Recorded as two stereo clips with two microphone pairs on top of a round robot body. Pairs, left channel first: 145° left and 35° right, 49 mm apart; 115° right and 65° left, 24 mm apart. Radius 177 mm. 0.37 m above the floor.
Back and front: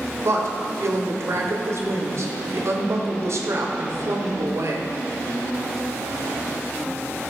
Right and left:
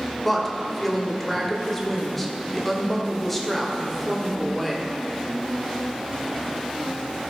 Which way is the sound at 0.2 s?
30° right.